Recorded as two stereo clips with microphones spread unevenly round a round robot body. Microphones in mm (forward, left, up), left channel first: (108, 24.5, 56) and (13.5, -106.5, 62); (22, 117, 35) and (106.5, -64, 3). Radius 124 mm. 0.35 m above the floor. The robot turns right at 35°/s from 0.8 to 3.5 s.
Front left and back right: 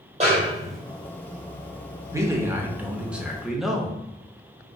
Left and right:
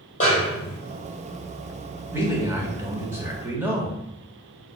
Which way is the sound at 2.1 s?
85° right.